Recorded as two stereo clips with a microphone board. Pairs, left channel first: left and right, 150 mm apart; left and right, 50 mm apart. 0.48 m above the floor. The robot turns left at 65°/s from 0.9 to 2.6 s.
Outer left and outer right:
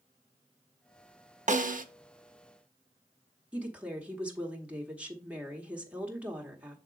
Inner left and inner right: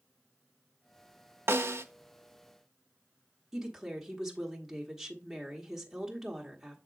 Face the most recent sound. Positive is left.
turn(degrees=-10)  # may be behind; listen again after turning